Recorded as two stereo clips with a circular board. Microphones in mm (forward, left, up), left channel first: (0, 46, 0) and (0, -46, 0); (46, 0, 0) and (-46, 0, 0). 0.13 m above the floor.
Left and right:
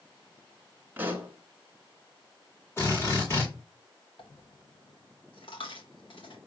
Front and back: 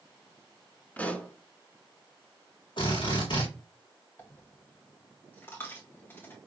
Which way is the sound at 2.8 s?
25° left.